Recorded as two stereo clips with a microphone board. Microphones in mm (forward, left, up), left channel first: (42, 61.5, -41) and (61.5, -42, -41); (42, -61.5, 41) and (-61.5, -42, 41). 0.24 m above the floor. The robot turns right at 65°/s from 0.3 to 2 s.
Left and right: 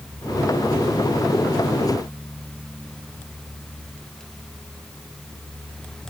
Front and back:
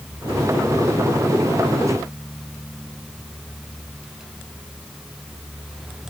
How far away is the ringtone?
No ringtone in this recording.